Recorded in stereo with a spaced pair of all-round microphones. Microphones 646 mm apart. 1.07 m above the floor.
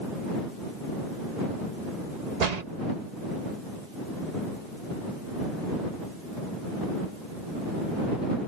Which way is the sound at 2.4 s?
80° right.